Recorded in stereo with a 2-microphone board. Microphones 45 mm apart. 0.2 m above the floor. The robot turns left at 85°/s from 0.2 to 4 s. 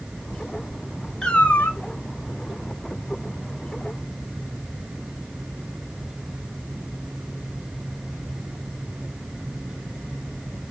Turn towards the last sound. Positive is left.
turn(degrees=-75)